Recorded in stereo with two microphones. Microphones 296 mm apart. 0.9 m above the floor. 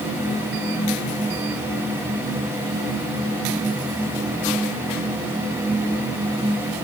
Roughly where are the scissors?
No scissors in this recording.